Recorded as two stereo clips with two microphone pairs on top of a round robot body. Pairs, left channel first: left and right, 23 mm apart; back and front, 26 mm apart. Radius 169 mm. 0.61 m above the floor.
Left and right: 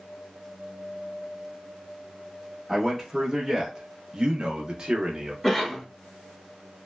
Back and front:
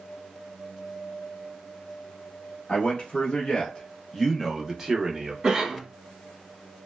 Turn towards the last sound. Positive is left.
turn(degrees=10)